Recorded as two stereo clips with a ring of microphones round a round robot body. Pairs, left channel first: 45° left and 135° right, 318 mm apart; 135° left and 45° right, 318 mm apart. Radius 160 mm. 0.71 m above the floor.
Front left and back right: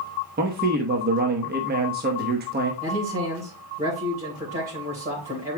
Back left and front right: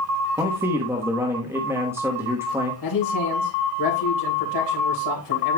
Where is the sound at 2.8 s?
160° left, 3.5 m.